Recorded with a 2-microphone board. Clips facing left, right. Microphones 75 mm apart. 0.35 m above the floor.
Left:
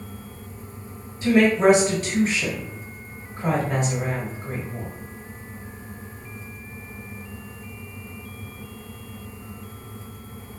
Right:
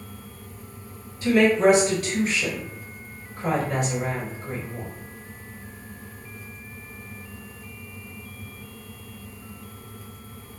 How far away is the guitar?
No guitar in this recording.